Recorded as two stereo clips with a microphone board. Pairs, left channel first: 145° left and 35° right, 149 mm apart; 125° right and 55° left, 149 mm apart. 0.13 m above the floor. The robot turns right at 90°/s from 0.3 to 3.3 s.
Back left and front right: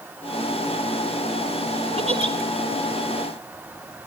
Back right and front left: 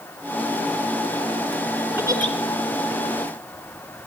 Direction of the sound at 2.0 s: 15° right.